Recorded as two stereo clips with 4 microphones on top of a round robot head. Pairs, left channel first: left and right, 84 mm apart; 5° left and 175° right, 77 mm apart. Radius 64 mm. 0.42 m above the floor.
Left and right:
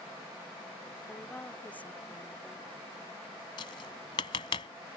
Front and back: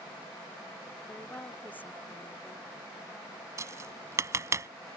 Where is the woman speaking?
40° left.